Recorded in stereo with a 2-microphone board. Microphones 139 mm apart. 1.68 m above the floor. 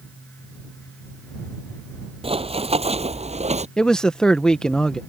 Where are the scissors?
I don't hear scissors.